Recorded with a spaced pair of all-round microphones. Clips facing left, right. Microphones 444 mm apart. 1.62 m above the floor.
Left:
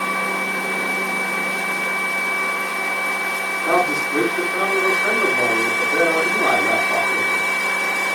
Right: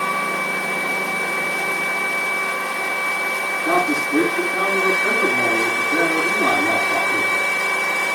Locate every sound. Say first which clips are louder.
3.6 s a man speaking: even; 50° right (ahead or behind), 8.5 m